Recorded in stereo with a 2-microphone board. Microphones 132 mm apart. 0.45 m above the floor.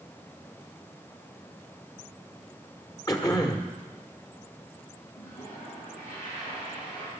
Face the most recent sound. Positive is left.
turn(degrees=80)